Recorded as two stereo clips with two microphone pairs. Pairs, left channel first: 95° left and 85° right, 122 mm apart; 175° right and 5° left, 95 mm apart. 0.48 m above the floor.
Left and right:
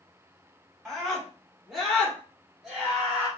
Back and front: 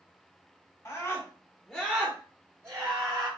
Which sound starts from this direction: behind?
A scream, at 0.8 s.